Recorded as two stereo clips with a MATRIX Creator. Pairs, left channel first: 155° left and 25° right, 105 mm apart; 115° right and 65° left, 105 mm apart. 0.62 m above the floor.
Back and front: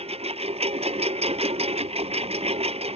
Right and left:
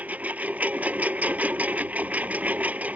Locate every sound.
0.0 s a lawn mower: 10° right